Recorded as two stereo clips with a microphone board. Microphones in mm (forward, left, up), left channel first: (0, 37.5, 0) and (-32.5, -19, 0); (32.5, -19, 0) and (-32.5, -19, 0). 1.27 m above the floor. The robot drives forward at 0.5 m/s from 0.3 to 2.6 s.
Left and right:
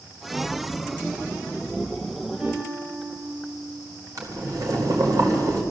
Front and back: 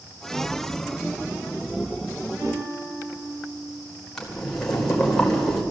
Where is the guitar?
165° left, 7.5 m.